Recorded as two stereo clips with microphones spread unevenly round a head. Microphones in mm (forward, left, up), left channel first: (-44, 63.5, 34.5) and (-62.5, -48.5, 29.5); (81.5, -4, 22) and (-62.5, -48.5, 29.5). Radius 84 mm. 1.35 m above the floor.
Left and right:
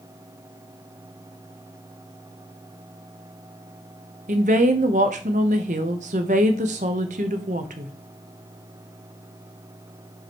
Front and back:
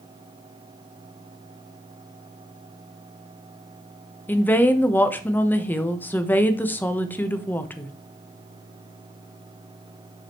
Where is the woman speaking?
60° right, 1.0 m.